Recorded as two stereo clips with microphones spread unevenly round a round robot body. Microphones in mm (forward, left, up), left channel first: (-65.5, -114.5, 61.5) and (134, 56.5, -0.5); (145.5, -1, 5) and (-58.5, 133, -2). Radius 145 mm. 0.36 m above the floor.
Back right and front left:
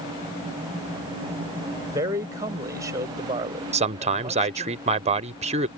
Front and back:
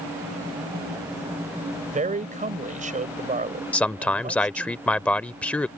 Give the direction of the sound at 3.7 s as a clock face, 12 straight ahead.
10 o'clock.